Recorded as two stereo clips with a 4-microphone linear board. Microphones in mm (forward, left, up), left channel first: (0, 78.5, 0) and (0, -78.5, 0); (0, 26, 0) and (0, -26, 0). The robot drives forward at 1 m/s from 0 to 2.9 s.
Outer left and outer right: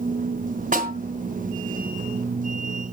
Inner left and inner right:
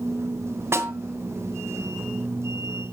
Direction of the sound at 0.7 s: 55° right (ahead or behind).